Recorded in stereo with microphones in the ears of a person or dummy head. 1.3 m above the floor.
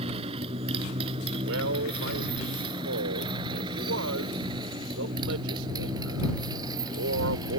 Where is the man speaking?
75° right (ahead or behind).